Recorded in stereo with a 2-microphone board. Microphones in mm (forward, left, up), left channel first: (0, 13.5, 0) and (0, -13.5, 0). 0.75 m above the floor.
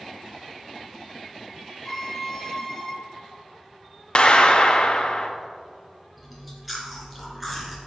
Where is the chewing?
Centre (ahead or behind), 2.5 m.